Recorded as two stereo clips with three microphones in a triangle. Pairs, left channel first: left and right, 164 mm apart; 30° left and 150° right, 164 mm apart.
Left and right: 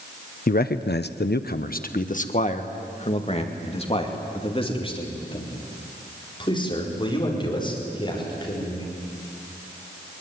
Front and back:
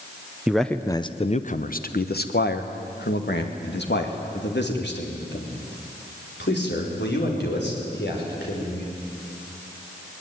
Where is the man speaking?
125° left, 0.7 m; by 8.9 s 25° left, 6 m.